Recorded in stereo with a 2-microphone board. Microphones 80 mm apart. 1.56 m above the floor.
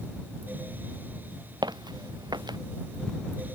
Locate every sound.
1.6 s footsteps: 60° right (ahead or behind)